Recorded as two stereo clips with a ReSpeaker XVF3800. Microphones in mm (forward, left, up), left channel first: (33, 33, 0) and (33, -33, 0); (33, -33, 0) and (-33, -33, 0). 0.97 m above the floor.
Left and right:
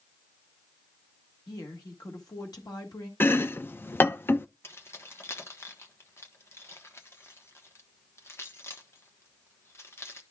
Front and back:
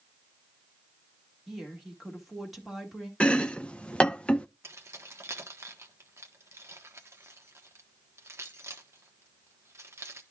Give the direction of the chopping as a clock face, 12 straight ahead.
10 o'clock.